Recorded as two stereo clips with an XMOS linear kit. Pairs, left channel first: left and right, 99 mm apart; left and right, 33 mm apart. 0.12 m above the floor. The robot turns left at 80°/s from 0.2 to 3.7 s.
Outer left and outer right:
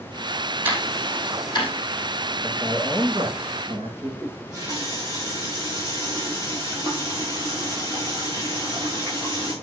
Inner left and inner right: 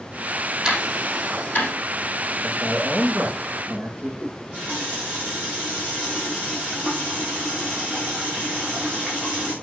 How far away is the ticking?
About 4.5 m.